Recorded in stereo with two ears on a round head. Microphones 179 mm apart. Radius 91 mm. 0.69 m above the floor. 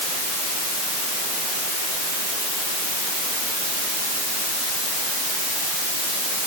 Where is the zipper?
I don't hear a zipper.